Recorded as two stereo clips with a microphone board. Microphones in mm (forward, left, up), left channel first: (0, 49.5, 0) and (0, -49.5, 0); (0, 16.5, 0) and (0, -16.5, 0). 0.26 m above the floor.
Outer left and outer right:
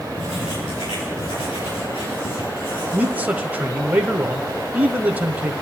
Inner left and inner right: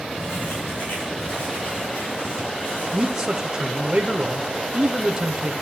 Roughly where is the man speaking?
Centre.